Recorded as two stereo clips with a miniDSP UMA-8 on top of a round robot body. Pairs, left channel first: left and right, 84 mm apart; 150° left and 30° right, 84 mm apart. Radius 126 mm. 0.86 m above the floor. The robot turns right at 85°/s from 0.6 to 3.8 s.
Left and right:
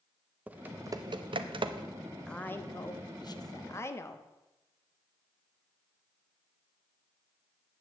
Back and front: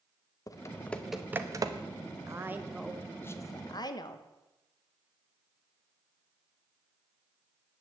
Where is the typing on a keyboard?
160° right, 0.9 m; by 1.9 s 55° right, 0.9 m.